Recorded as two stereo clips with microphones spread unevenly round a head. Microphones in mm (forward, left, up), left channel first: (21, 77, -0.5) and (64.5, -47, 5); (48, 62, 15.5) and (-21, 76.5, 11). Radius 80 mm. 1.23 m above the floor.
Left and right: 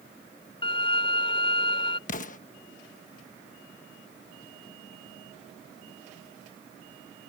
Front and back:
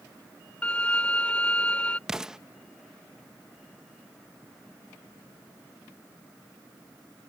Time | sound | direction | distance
0.6 | a violin | 60° left | ?
2.1 | an explosion | 85° left | ?